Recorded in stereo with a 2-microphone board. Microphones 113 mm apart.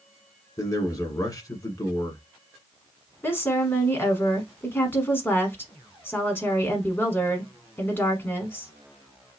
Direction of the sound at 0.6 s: 30° left (ahead or behind).